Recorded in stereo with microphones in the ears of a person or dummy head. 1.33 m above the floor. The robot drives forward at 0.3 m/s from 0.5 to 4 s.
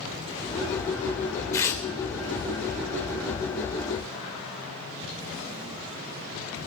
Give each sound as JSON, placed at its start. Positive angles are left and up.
{"t": 1.5, "sound": "tearing paper", "side_deg": 15, "distance_m": 1.3}